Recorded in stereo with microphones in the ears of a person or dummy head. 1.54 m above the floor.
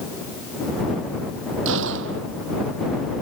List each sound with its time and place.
1.6 s a gunshot: 70° right (ahead or behind)